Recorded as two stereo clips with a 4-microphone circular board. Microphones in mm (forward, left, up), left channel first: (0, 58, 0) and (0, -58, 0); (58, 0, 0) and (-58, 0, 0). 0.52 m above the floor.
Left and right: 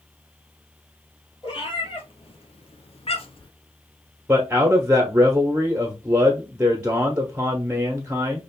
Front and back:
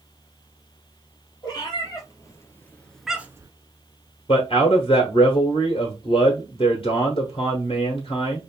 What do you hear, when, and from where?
1.4 s a cat meowing: 50° left, 1.9 m; by 3.5 s 125° left, 0.7 m
4.3 s a man speaking: 15° right, 1.1 m